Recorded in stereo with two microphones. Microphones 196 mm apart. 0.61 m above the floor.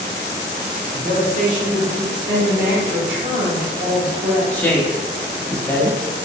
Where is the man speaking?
50° right (ahead or behind), 1.5 m.